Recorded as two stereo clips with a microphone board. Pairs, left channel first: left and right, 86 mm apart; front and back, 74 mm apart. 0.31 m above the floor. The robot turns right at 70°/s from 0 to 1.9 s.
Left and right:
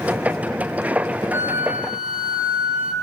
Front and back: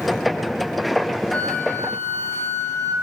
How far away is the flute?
About 0.9 m.